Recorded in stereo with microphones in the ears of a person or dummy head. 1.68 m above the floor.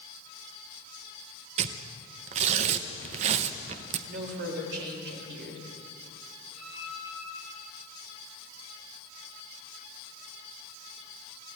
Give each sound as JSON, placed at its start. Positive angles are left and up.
{"t": 1.6, "sound": "tearing paper", "side_deg": -35, "distance_m": 1.0}
{"t": 4.1, "sound": "a woman speaking", "side_deg": -60, "distance_m": 4.5}
{"t": 6.5, "sound": "a violin", "side_deg": 0, "distance_m": 8.0}